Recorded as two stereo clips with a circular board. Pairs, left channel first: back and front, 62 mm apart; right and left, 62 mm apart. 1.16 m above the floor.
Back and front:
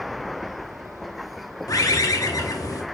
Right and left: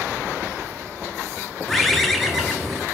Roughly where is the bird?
Behind.